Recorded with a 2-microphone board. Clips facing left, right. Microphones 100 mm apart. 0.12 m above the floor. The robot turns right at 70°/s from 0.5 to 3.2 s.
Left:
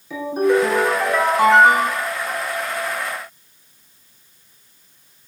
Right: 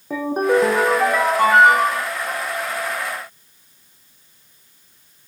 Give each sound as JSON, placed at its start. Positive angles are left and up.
{"t": 0.1, "sound": "a ringtone", "azimuth_deg": -45, "distance_m": 2.5}